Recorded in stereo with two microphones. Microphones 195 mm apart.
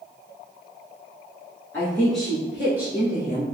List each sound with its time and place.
1.7 s a woman speaking: 10° left (ahead or behind), 1.7 m; by 3.5 s 20° right (ahead or behind), 1.7 m